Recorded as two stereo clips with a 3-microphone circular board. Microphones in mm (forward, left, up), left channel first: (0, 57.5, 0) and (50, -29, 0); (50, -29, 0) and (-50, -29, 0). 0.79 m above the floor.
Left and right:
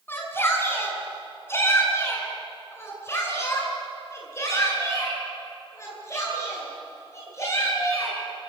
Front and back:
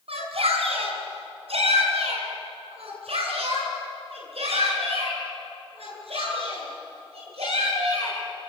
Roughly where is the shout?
Behind.